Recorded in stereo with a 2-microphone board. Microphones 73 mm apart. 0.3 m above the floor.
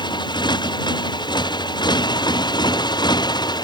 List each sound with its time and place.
0.0 s a motorcycle: 75° left (ahead or behind); by 3.6 s 65° left (ahead or behind)